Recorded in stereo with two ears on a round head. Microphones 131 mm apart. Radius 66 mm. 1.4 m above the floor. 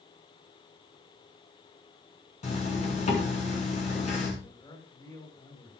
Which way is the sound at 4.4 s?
30° left (ahead or behind).